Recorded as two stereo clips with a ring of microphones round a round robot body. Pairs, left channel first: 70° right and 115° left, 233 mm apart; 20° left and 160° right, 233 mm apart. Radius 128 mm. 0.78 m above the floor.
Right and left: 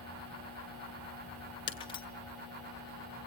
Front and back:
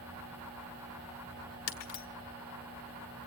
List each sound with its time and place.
1.7 s breaking glass: straight ahead, 1.6 m